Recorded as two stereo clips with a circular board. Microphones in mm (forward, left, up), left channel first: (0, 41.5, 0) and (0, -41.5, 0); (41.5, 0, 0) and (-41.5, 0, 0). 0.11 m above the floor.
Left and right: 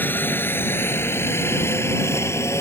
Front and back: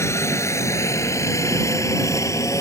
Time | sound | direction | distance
0.0 | a helicopter | 35° left | ?